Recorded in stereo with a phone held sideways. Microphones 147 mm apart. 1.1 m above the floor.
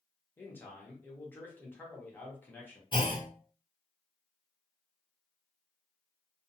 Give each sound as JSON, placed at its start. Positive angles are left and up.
{"t": 0.4, "sound": "a man speaking", "side_deg": 15, "distance_m": 1.0}
{"t": 2.9, "sound": "a clunk", "side_deg": 35, "distance_m": 0.7}